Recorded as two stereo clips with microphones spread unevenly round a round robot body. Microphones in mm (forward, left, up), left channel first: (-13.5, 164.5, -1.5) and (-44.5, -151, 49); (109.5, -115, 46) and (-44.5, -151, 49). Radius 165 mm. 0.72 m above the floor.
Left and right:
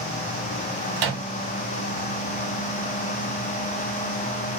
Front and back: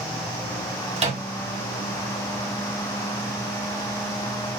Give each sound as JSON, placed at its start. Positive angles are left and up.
{"t": 1.0, "sound": "a microwave", "azimuth_deg": -115, "distance_m": 1.7}